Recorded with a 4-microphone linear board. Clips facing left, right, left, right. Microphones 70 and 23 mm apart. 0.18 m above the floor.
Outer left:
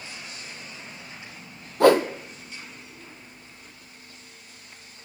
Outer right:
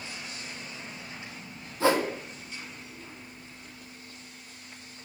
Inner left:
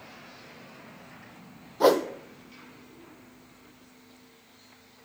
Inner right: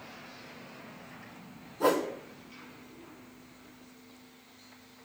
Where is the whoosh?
70° left (ahead or behind), 1.0 m.